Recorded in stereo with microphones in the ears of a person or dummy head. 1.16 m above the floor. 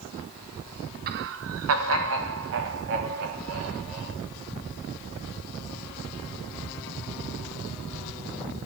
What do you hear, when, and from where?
1.1 s laughter: 40° right (ahead or behind), 0.5 m; by 4.2 s 70° right (ahead or behind), 3.5 m